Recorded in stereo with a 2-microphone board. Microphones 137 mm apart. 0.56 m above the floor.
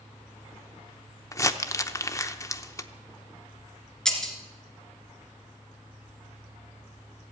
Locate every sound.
1.3 s crumpling: 20° left (ahead or behind), 0.7 m
4.0 s breaking glass: 5° left (ahead or behind), 2 m